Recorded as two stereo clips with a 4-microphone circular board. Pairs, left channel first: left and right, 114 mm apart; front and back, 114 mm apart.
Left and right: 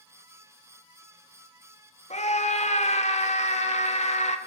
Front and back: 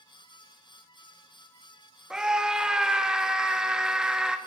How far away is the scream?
About 3 m.